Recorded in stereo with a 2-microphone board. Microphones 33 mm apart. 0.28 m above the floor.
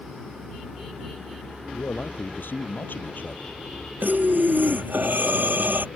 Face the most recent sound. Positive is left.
turn(degrees=-75)  # may be behind; listen again after turning